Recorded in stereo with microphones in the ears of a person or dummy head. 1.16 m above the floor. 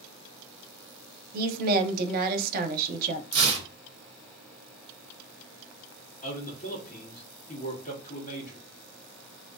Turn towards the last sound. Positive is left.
turn(degrees=40)  # may be behind; listen again after turning